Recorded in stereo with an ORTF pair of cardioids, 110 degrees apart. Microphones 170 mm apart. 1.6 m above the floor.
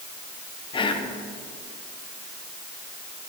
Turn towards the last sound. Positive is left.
turn(degrees=30)